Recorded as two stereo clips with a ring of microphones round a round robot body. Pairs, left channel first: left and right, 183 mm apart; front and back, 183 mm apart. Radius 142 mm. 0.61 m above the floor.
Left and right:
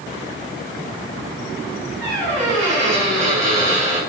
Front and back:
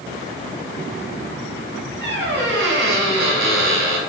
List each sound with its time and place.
2.0 s a squeak: 175° left, 1.5 m